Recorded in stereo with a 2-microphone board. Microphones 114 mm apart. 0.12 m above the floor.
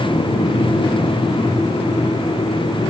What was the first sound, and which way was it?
Only background noise.